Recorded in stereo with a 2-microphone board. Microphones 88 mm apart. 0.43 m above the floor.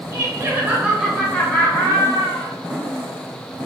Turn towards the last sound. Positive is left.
turn(degrees=45)  # may be behind; listen again after turning